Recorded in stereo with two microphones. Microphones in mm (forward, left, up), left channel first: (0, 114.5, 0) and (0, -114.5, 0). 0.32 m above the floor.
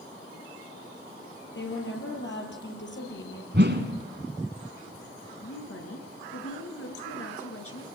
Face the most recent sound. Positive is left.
turn(degrees=75)  # may be behind; listen again after turning